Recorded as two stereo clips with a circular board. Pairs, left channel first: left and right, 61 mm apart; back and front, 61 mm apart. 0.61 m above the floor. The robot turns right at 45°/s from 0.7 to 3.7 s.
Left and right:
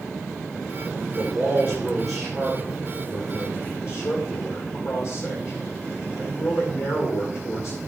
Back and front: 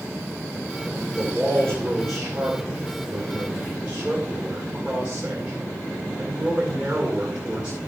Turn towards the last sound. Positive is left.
turn(degrees=65)